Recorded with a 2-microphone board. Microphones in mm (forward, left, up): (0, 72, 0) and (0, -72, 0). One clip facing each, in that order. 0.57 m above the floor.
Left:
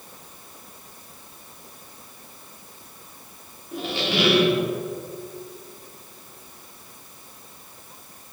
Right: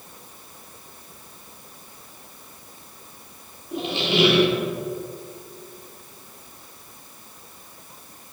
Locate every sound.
3.7 s a squeak: 20° right (ahead or behind), 0.9 m